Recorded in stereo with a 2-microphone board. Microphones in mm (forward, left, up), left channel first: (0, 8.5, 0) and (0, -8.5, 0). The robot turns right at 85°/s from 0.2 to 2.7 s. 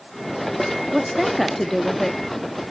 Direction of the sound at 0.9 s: 40° right.